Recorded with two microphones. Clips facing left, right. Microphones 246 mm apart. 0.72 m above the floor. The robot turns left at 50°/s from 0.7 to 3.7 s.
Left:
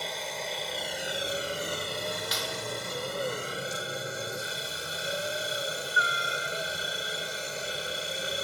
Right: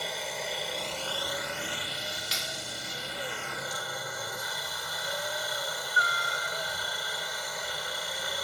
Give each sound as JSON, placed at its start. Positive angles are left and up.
{"t": 0.0, "sound": "a helicopter", "azimuth_deg": 180}
{"t": 2.3, "sound": "a clap", "side_deg": -25}